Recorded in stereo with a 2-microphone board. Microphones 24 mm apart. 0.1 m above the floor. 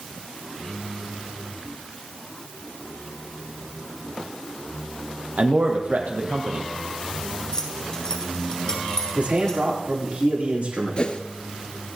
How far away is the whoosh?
About 1.4 m.